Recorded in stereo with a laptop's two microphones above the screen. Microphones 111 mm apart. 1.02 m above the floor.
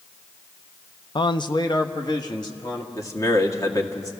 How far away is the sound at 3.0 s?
About 1.9 m.